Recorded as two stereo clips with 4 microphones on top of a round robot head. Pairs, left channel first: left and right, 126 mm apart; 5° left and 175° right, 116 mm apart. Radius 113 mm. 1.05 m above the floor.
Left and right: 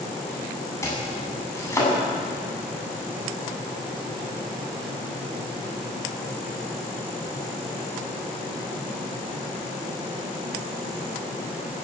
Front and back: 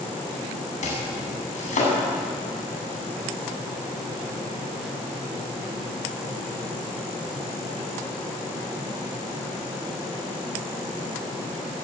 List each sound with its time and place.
0.8 s chopping: 20° left, 8 m